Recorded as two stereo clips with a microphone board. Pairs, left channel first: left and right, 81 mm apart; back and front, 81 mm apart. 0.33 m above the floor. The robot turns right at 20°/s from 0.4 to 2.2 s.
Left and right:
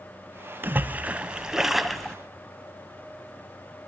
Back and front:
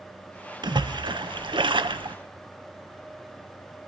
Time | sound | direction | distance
0.6 | a splash | 25° right | 0.5 m